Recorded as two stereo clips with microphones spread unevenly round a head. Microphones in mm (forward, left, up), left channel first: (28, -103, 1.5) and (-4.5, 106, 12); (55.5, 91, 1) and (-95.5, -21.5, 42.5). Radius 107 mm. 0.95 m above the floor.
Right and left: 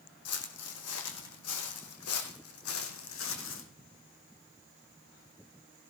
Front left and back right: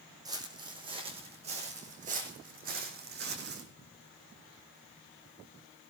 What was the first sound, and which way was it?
Footsteps, 75° right.